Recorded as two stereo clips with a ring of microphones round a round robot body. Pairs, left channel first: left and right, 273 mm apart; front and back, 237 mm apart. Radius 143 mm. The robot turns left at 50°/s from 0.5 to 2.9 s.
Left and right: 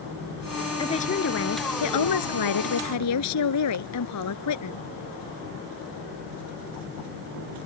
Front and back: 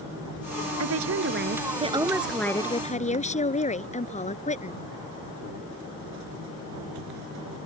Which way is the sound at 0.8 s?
165° left.